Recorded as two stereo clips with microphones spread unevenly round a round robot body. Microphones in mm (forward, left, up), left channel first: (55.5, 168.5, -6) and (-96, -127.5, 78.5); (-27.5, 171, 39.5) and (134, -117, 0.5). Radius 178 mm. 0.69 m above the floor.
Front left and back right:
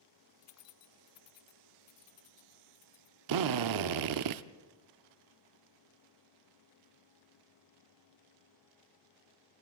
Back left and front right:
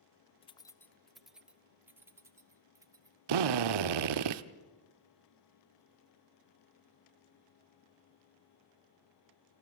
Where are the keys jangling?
45° left, 0.5 m; by 3.2 s 20° left, 2 m.